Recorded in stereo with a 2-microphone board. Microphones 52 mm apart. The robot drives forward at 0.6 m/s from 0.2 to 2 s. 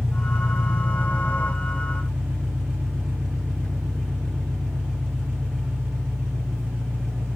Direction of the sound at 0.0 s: Centre (ahead or behind).